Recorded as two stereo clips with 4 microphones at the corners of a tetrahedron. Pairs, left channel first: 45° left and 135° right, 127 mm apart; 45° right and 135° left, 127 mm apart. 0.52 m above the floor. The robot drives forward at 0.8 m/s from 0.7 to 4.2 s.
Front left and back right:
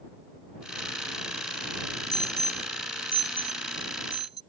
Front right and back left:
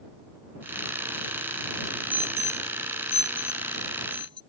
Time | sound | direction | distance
2.1 | an alarm | 155° right | ?